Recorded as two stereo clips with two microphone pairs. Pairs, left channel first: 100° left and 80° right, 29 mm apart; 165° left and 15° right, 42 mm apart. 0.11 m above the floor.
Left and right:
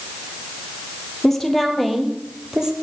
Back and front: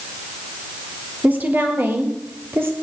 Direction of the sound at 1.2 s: 20° left.